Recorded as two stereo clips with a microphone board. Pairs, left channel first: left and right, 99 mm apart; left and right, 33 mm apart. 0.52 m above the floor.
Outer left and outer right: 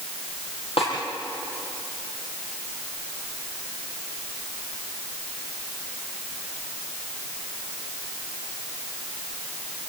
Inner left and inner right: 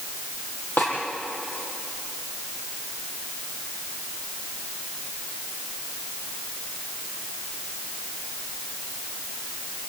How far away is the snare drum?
About 6 m.